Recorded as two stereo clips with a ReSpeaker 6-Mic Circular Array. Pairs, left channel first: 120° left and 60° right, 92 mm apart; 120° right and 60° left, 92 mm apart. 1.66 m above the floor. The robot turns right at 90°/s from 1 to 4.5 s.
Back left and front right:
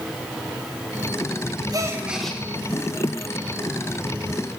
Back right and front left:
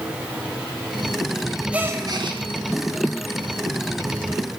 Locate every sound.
1.7 s a gasp: 15° right, 1.3 m; by 2.4 s 45° left, 1.3 m